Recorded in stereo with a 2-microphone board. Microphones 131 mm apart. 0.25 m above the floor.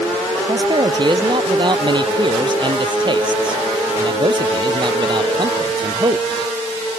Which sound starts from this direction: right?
A man speaking, at 0.5 s.